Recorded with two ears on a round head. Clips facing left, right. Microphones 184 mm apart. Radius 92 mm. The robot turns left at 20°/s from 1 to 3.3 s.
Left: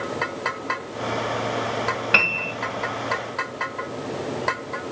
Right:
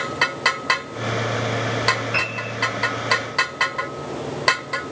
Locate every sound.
2.1 s a piano: 80° left, 1.2 m; by 2.5 s 85° left, 1.2 m